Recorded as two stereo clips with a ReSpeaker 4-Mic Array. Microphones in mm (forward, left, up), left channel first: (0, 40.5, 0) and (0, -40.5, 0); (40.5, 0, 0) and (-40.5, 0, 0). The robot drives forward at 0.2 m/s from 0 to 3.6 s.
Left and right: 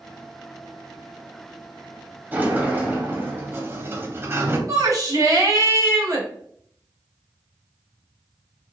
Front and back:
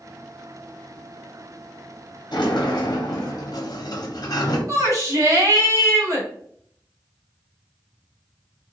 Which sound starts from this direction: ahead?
A sliding door, at 2.3 s.